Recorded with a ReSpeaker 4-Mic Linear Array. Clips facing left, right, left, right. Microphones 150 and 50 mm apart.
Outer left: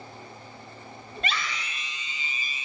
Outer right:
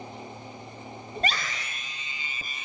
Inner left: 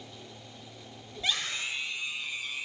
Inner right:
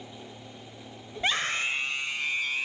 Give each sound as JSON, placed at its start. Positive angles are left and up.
{"t": 1.2, "sound": "a scream", "side_deg": -35, "distance_m": 1.1}